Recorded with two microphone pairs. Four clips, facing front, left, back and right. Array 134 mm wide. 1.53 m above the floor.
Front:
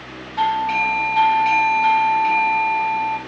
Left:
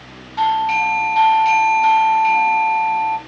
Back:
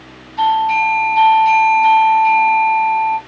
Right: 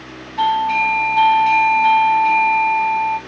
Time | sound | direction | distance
0.4 | a doorbell | 50° left | 1.0 m